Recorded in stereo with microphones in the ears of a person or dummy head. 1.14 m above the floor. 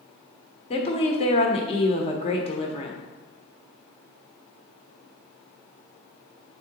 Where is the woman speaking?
30° left (ahead or behind), 1.1 m.